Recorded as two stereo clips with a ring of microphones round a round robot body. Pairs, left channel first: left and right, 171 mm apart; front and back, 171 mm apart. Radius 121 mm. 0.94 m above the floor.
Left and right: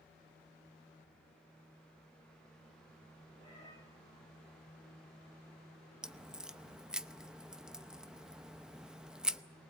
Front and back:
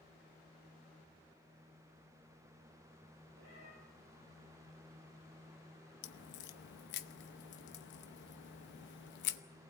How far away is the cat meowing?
About 9 m.